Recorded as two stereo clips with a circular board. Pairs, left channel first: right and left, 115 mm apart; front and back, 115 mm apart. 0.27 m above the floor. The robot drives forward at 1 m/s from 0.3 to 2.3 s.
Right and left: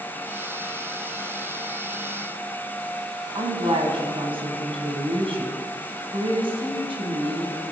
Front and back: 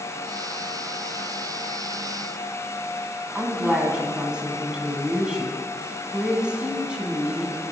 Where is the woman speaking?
100° left, 2.0 m.